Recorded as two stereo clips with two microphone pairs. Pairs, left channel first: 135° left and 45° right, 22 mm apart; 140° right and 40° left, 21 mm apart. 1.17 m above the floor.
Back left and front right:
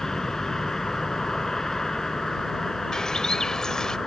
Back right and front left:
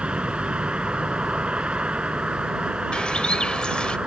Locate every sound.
0.0 s a vehicle: 70° left
2.9 s a bird: 170° right